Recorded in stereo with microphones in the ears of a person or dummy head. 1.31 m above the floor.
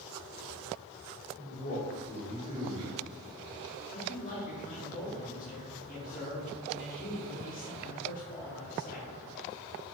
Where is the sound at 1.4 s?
35° left (ahead or behind), 1.3 m.